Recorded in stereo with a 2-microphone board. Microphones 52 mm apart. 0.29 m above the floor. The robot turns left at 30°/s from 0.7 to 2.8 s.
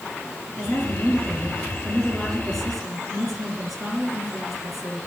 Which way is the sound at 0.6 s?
65° left.